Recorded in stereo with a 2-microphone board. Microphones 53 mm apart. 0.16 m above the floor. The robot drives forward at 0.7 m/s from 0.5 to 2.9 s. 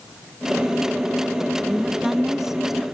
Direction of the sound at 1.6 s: 10° right (ahead or behind).